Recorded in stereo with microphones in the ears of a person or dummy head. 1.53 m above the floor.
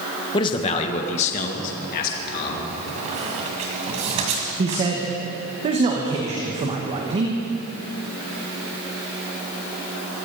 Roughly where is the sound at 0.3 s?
Left.